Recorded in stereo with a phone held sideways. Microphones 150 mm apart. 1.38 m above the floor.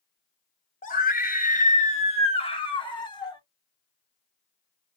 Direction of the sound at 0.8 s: 65° left (ahead or behind).